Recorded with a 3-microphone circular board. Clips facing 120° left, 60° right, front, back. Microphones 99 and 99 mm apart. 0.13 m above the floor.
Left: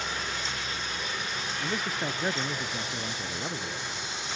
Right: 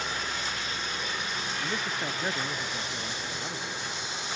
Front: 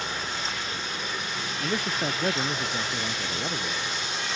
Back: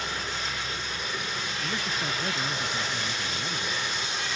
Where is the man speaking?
35° left; by 4.0 s 50° left.